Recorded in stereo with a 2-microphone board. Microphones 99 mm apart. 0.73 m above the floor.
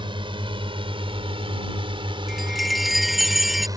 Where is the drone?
55° right (ahead or behind); by 3.8 s 35° right (ahead or behind).